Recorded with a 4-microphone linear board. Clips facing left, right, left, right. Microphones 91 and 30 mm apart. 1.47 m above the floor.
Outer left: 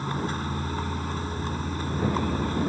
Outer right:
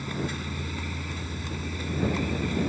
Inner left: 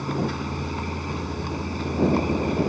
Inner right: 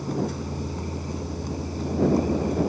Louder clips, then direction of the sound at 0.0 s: Outer left 3 dB, inner left 2 dB; 40° left (ahead or behind).